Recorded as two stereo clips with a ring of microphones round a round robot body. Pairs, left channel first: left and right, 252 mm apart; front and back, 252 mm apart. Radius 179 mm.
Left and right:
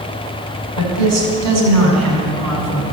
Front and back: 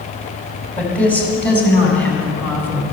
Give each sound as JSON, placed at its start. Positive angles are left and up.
{"t": 0.8, "sound": "a woman speaking", "azimuth_deg": -85, "distance_m": 4.5}